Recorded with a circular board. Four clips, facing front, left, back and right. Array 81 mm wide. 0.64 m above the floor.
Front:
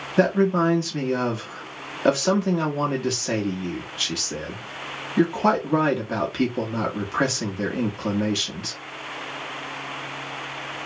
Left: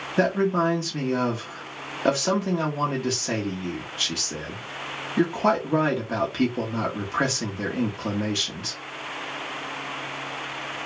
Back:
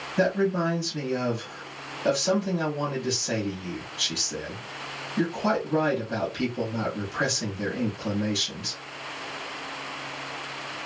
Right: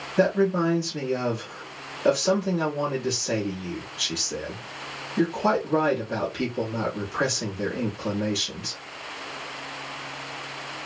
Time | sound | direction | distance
0.2 | a man speaking | 25° left | 0.9 m